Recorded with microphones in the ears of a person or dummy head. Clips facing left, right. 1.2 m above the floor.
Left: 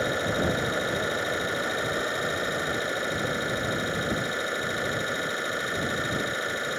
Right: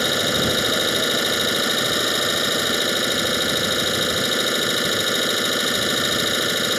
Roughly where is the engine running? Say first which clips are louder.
Right 4 dB; right.